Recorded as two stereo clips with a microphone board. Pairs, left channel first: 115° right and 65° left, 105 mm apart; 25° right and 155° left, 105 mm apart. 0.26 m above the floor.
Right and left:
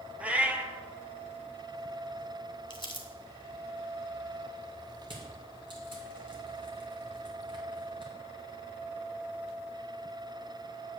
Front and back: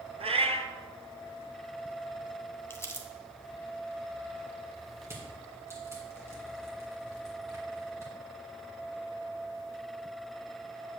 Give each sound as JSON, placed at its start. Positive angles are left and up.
{"t": 0.2, "sound": "a cat meowing", "azimuth_deg": 145, "distance_m": 0.7}
{"t": 2.7, "sound": "crumpling", "azimuth_deg": -85, "distance_m": 1.0}
{"t": 5.0, "sound": "crushing", "azimuth_deg": 100, "distance_m": 1.9}